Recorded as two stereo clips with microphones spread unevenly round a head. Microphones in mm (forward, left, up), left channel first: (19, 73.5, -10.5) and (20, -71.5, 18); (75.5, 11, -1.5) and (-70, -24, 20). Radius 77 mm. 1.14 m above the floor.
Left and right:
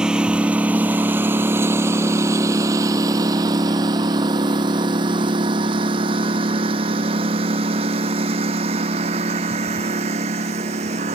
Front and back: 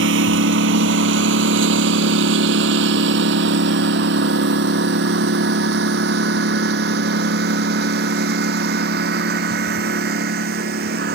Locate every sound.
0.0 s a lawn mower: 175° right; by 11.2 s 140° right